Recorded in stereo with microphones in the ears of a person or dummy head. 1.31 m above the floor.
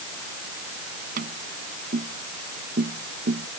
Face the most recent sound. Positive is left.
turn(degrees=-55)  # may be behind; listen again after turning